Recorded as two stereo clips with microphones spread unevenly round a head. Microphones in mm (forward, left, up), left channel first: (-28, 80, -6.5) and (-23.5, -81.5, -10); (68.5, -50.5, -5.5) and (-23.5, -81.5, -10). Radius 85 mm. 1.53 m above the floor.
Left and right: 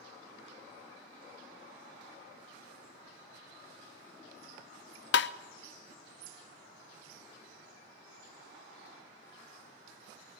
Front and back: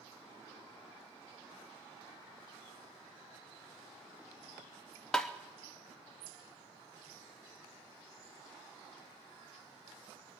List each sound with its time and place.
5.1 s tapping: 105° left, 0.6 m